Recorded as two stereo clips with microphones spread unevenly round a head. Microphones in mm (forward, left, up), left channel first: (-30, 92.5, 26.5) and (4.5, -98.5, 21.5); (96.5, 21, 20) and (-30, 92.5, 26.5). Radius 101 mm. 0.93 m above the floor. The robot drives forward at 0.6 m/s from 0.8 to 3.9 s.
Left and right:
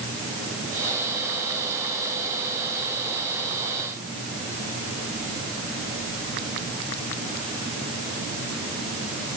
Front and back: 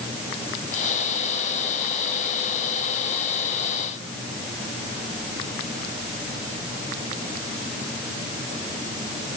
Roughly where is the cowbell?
No cowbell in this recording.